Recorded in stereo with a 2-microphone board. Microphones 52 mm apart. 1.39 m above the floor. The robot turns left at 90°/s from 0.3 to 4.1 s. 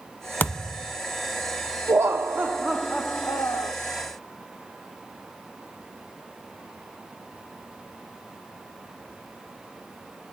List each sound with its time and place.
0.4 s a thud: 65° left, 0.9 m; by 1.0 s 15° left, 0.9 m
1.9 s laughter: 100° right, 0.9 m; by 3.7 s 95° left, 0.9 m